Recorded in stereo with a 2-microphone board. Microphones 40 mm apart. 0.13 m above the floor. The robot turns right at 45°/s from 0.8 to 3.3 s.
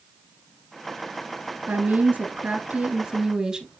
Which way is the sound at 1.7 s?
100° right.